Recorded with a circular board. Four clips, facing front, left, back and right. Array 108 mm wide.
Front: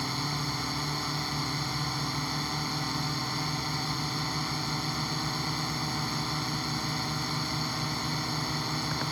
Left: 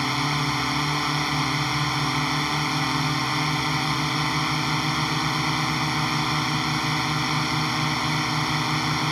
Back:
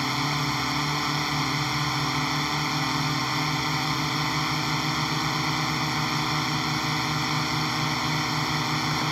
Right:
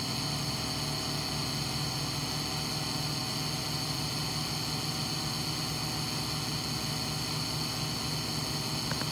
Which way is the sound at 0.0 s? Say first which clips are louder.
Left 11 dB, back 6 dB; 115° left.